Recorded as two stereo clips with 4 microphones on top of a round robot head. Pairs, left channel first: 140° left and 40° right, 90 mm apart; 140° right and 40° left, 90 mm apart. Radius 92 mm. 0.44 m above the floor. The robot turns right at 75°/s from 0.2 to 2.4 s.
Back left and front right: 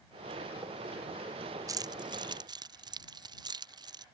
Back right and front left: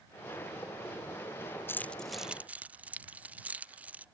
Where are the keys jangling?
80° right; by 4.0 s 25° right.